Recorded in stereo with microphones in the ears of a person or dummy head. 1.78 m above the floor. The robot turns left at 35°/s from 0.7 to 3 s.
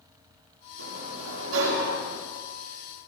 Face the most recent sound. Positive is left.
turn(degrees=-155)